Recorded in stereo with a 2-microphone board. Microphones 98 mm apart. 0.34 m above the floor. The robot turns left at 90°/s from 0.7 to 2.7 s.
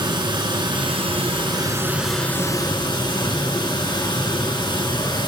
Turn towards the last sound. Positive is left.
turn(degrees=125)